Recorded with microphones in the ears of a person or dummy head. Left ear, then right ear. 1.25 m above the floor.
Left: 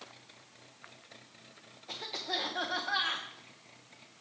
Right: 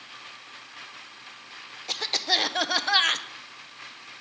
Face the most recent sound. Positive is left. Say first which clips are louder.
# right 11 dB
turn(degrees=-70)  # may be behind; listen again after turning